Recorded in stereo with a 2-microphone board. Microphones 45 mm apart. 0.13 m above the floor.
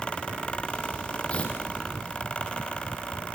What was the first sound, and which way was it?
Tearing paper, 25° left (ahead or behind).